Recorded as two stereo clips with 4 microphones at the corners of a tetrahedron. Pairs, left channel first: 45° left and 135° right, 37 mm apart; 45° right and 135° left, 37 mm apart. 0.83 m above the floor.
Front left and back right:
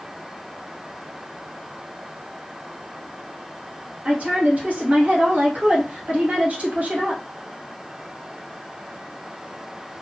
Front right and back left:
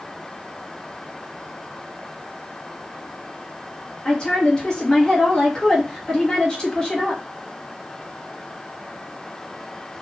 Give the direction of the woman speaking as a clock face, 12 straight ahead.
4 o'clock.